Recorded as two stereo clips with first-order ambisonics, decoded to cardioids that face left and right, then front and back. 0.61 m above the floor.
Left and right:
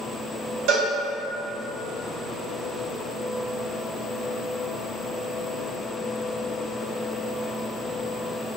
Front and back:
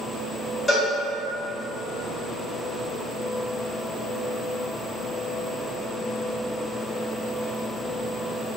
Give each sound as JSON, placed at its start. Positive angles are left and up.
{"t": 0.7, "sound": "a cowbell", "azimuth_deg": -75, "distance_m": 1.3}